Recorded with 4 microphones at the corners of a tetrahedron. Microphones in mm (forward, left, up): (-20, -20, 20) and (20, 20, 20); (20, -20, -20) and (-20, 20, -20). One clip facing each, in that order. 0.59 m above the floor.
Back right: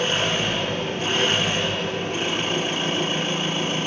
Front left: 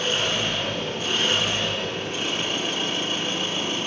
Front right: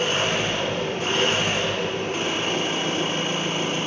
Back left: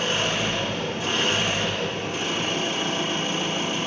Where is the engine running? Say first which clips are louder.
Back right 2 dB, front right 2 dB; 95° right, 4.5 m.